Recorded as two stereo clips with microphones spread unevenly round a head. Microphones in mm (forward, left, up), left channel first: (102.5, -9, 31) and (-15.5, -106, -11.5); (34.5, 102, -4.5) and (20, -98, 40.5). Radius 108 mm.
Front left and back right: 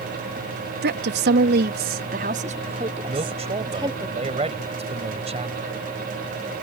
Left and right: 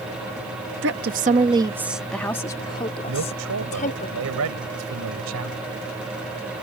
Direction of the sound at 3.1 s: 90° right.